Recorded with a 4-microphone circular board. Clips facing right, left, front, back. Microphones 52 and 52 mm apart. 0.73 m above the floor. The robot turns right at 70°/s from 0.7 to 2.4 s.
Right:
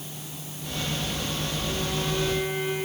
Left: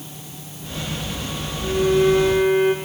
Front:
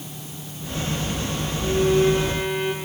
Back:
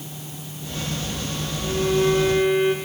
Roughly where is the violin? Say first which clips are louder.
Left 16 dB, front 2 dB; ahead left.